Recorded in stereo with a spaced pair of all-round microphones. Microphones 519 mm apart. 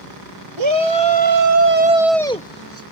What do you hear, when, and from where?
0.6 s a shout: 65° right (ahead or behind); by 2.8 s 30° left (ahead or behind)